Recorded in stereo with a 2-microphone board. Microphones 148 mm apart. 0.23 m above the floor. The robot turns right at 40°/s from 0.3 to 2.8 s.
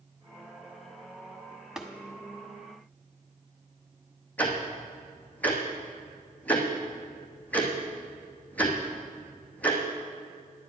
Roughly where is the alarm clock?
I don't hear an alarm clock.